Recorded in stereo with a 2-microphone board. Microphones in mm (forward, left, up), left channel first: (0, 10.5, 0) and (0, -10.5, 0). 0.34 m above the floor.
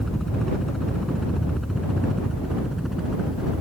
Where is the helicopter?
10° left (ahead or behind); by 3.6 s 10° right (ahead or behind).